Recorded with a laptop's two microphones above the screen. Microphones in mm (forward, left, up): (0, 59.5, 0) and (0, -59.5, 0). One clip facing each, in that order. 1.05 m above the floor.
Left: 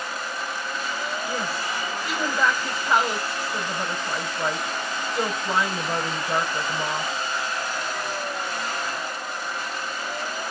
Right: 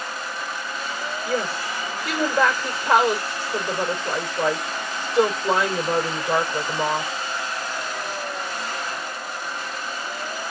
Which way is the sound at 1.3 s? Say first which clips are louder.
Right 3 dB; 80° right.